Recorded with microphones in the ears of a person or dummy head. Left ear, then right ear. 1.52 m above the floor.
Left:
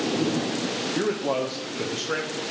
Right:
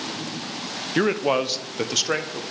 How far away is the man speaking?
About 0.8 m.